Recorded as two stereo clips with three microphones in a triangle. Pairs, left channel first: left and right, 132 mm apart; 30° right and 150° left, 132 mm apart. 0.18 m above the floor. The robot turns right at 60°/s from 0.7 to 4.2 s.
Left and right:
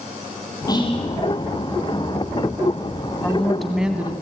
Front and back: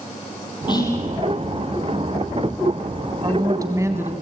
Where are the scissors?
No scissors in this recording.